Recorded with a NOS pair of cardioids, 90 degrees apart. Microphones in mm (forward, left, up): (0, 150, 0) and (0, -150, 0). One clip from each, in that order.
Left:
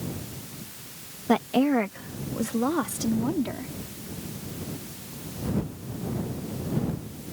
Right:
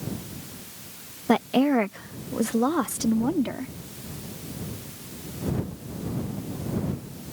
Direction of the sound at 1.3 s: 20° right.